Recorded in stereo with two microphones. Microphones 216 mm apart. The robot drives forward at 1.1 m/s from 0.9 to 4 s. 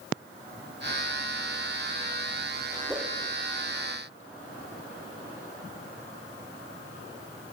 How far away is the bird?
No bird in this recording.